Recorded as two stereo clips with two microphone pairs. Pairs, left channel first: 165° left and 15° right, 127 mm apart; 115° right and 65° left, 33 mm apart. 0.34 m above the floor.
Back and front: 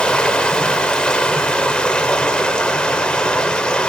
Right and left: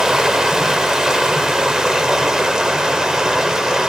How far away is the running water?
About 0.8 m.